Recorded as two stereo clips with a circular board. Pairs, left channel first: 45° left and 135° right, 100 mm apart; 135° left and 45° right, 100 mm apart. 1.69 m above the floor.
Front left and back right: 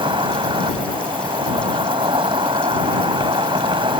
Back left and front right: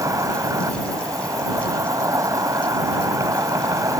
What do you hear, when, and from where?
0.0 s an insect: 100° right